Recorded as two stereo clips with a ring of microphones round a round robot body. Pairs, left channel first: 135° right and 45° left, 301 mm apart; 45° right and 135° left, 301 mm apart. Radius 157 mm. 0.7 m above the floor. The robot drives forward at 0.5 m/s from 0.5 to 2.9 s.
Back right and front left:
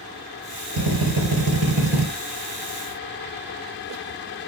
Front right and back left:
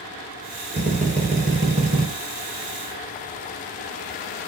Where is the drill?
65° left, 5 m; by 2.1 s 70° left, 5 m.